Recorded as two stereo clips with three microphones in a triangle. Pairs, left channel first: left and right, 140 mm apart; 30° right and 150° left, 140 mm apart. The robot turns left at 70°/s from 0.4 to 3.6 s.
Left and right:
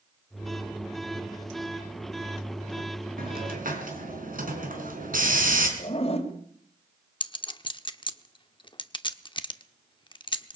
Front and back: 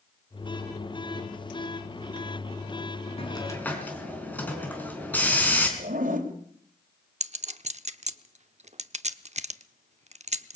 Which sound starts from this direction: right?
A hiss, at 3.2 s.